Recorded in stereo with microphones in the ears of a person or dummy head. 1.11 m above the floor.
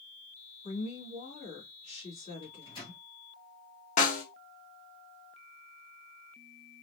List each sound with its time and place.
0.6 s a woman speaking: 35° left (ahead or behind), 2 m
2.4 s a microwave: 20° left (ahead or behind), 2.0 m
4.0 s a snare drum: 40° left (ahead or behind), 1.3 m